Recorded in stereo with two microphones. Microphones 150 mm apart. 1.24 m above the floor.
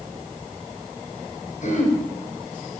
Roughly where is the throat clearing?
Left.